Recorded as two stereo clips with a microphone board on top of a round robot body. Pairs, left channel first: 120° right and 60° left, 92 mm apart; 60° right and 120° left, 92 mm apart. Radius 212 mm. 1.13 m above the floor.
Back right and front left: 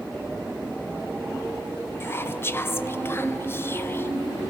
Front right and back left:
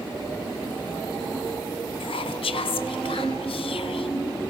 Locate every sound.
2.0 s whispering: 60° right, 0.9 m